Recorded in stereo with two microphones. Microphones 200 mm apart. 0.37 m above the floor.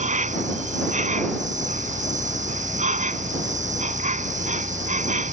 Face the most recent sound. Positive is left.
turn(degrees=-40)  # may be behind; listen again after turning